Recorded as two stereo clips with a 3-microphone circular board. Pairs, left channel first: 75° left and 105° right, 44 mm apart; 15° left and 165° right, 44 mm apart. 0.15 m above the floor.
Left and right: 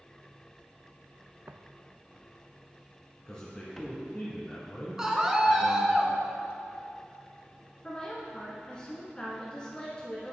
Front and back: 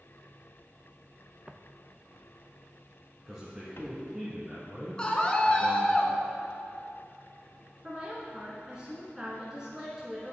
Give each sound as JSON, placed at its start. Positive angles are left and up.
{"t": 1.5, "sound": "footsteps", "azimuth_deg": -100, "distance_m": 0.5}
{"t": 3.3, "sound": "a man speaking", "azimuth_deg": 135, "distance_m": 1.5}
{"t": 5.0, "sound": "a scream", "azimuth_deg": -35, "distance_m": 1.2}
{"t": 7.8, "sound": "a woman speaking", "azimuth_deg": 130, "distance_m": 1.4}